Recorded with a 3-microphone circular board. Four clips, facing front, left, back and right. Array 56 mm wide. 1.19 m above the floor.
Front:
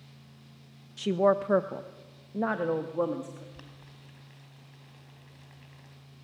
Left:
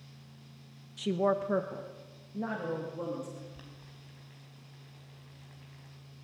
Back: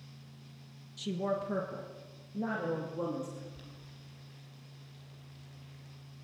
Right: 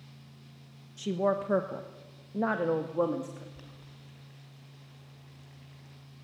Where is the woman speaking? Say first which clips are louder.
Even, front 10 dB; 15° left, 1.2 m; by 3.4 s 55° right, 2.5 m.